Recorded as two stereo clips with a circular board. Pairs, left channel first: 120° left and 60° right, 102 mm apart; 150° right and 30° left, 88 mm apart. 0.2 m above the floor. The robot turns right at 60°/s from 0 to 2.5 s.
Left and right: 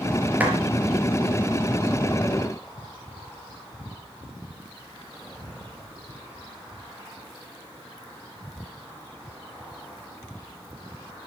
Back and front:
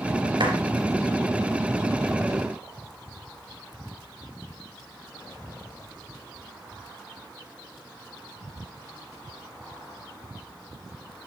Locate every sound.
0.4 s a clap: 10° left, 3.5 m; by 0.6 s 20° left, 3.5 m